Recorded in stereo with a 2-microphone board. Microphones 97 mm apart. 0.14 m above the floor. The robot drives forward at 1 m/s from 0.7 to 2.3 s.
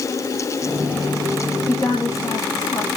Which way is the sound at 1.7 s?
35° left (ahead or behind).